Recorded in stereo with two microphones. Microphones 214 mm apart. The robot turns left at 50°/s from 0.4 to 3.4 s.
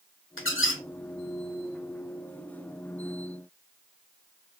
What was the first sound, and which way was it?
A squeak, 70° left (ahead or behind).